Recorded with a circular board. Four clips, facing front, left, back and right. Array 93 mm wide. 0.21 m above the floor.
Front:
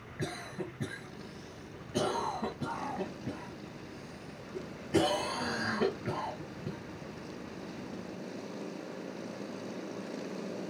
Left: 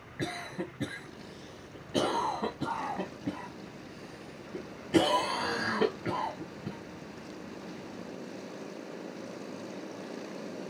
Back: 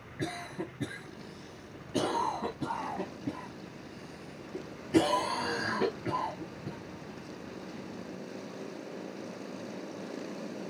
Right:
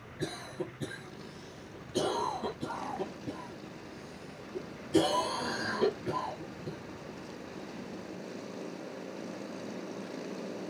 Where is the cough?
95° left, 1.7 m.